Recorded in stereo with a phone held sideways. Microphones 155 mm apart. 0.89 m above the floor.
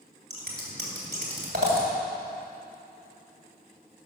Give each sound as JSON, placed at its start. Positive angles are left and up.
{"t": 0.3, "sound": "scissors", "side_deg": -80, "distance_m": 2.5}